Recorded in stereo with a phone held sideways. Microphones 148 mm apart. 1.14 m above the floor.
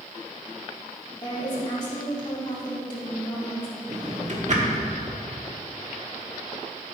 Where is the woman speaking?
30° left (ahead or behind), 3 m.